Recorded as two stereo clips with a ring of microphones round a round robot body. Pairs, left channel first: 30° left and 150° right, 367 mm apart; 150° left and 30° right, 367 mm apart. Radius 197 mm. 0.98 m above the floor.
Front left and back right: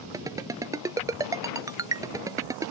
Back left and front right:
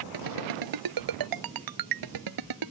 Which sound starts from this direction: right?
A ringtone, at 0.1 s.